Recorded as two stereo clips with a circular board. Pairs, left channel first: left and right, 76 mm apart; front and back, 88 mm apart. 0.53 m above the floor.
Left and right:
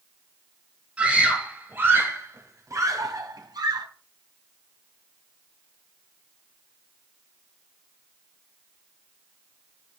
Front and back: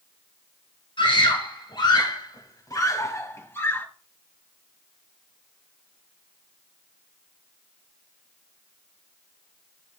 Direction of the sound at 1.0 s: 15° right.